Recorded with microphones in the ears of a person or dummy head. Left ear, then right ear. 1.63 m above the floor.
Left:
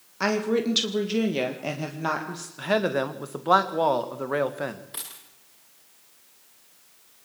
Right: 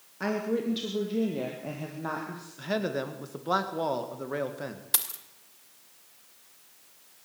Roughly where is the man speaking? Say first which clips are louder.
Left 7 dB; left.